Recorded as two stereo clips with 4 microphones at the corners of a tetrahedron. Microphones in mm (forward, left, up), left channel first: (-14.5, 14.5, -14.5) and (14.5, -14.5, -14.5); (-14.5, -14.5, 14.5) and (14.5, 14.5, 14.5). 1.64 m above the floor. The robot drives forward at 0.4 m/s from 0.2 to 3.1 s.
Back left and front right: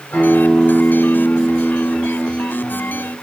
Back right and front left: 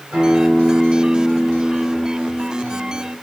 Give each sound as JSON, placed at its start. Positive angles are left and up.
{"t": 0.1, "sound": "a guitar", "azimuth_deg": 85, "distance_m": 6.0}